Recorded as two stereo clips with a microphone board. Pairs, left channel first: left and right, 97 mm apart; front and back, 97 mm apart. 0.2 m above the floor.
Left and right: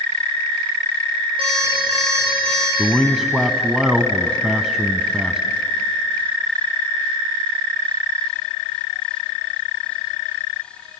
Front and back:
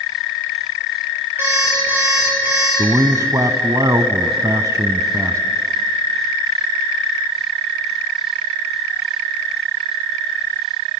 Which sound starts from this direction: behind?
A man speaking, at 2.8 s.